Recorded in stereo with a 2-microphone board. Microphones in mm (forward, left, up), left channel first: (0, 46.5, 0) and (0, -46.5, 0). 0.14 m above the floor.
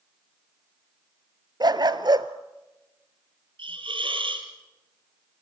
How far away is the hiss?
About 3 m.